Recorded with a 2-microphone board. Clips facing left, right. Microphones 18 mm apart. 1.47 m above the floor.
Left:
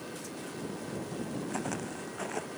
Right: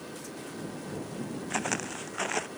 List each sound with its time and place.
1.5 s footsteps: 55° right (ahead or behind)